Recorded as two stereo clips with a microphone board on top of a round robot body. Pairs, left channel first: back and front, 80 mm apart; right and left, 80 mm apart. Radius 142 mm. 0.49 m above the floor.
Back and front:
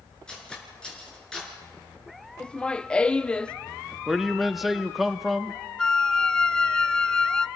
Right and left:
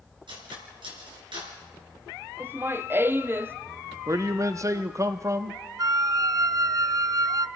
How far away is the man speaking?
About 0.8 m.